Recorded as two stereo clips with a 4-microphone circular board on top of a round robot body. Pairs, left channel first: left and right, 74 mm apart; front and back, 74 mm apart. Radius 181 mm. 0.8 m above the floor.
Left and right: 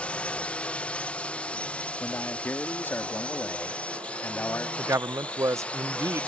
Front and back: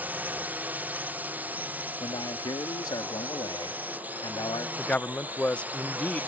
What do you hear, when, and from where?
0.0 s a drone: 145° left
2.0 s a man speaking: 25° left
4.8 s a man speaking: 65° right